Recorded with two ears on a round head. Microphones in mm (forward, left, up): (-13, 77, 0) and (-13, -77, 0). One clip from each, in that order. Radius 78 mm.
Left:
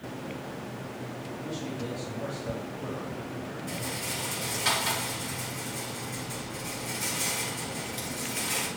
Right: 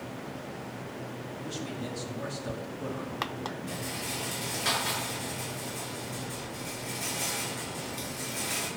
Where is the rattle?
5° left (ahead or behind), 7 m.